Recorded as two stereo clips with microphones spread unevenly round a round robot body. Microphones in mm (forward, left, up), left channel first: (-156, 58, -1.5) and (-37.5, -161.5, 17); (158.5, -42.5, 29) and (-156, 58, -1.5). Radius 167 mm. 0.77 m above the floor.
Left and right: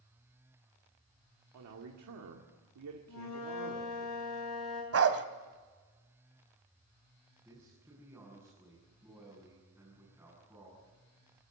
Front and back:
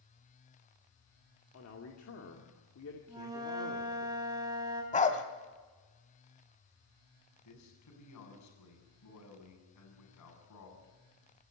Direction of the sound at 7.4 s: 20° left.